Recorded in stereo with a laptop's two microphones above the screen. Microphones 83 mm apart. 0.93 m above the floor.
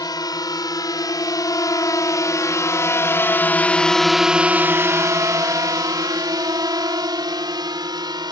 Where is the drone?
50° left (ahead or behind); by 8.3 s 60° right (ahead or behind).